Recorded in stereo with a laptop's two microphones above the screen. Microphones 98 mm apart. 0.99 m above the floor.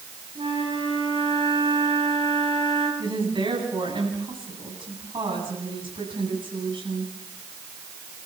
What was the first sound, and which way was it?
A flute, 75° right (ahead or behind).